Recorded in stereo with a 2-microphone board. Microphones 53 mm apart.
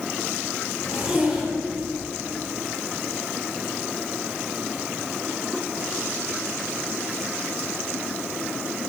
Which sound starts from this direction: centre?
A zipper, at 0.8 s.